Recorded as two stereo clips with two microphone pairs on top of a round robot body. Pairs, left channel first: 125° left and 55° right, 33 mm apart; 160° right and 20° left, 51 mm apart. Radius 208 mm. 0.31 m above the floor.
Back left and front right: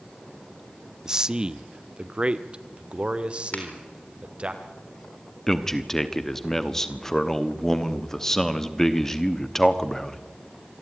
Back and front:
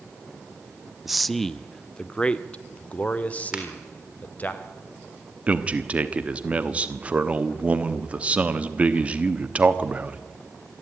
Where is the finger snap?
100° left, 4 m.